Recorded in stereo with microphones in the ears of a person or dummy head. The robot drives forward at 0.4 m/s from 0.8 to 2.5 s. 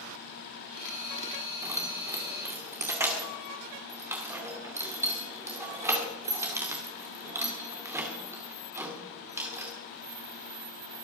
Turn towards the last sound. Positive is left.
turn(degrees=-10)  # may be behind; listen again after turning